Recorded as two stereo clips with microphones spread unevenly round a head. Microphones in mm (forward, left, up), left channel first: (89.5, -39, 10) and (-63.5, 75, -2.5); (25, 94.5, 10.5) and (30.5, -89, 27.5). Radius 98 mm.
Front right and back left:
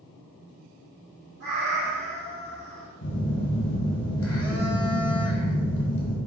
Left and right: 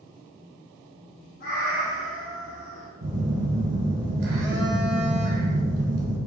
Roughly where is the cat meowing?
Behind left.